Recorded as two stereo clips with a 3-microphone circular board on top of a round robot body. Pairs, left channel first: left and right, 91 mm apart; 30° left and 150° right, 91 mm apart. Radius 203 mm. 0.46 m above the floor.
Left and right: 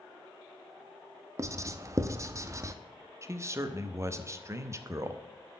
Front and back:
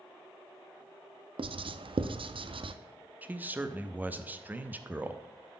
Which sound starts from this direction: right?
A man speaking, at 3.2 s.